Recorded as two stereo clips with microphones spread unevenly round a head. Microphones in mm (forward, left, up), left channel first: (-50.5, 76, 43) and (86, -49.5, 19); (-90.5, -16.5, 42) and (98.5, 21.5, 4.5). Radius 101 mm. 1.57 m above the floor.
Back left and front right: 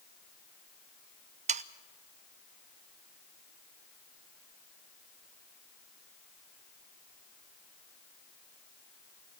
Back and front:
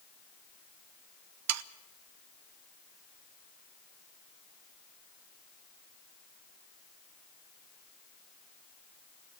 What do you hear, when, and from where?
1.5 s sawing: 15° left, 0.7 m